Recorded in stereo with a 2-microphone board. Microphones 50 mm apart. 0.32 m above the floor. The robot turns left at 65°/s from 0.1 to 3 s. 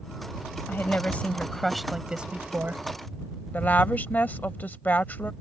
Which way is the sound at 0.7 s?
70° left.